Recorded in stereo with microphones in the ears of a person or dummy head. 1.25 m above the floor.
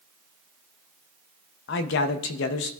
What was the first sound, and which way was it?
A man speaking, 60° left (ahead or behind).